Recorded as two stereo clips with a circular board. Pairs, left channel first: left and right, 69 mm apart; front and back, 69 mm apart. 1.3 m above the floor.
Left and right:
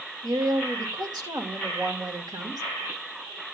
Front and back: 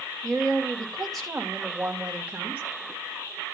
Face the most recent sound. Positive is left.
turn(degrees=-115)